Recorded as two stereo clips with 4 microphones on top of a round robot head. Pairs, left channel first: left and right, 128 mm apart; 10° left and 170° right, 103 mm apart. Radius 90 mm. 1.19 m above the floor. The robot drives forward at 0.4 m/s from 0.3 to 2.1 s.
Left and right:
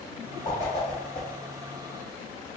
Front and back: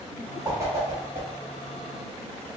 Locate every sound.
0.5 s a whoosh: 140° left, 0.7 m; by 1.3 s 160° left, 0.9 m